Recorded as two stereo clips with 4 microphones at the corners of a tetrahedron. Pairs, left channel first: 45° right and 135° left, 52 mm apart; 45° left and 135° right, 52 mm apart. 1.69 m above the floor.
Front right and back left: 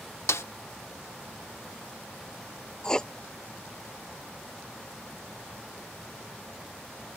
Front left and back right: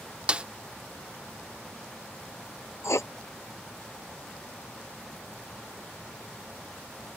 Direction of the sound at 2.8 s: 30° left.